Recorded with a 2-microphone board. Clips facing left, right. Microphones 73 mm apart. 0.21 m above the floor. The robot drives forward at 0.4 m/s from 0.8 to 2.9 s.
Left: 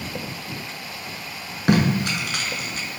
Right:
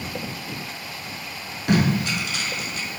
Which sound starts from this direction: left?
Tape being pulled, at 1.7 s.